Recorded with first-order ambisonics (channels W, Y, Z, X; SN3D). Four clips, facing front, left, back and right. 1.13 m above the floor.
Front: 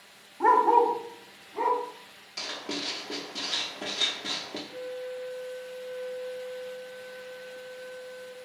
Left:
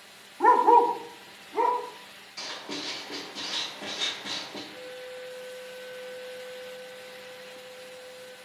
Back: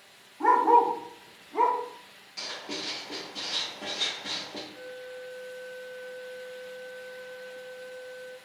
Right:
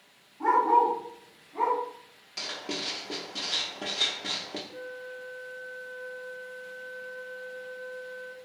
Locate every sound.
0.4 s a dog barking: 70° left, 0.6 m; by 1.8 s 140° left, 1.2 m
2.4 s writing: 60° right, 0.7 m
4.7 s a flute: 65° right, 0.6 m